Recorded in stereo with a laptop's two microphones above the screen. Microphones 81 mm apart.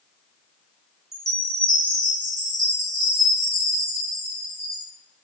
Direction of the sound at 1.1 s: 45° right (ahead or behind).